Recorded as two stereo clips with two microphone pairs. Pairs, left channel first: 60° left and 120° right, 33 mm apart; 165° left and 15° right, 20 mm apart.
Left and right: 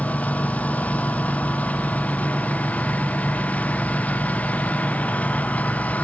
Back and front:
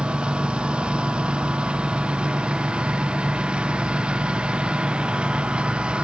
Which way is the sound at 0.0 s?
20° left.